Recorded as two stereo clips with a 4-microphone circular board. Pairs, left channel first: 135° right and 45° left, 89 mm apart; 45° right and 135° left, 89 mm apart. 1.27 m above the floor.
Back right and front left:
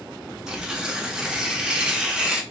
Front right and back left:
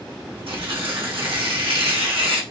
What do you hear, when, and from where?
0.5 s tearing paper: 130° left, 1.3 m